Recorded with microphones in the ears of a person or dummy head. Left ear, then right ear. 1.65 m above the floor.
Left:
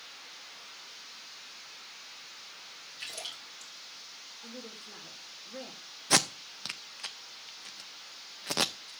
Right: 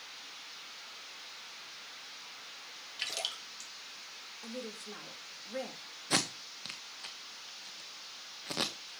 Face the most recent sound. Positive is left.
turn(degrees=25)  # may be behind; listen again after turning